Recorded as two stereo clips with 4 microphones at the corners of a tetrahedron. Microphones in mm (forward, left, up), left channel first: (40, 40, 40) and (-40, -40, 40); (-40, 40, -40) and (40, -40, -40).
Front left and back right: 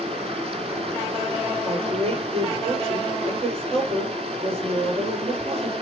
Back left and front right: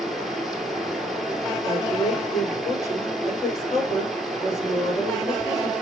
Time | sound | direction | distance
0.0 | running water | 135° right | 1.9 m
1.6 | a woman speaking | 160° right | 4.5 m